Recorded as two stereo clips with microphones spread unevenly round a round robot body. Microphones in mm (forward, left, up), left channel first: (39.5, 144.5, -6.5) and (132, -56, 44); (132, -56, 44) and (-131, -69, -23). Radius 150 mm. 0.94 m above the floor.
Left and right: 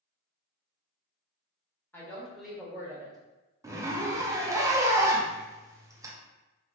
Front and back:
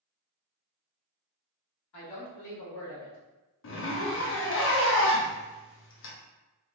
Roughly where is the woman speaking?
Ahead left.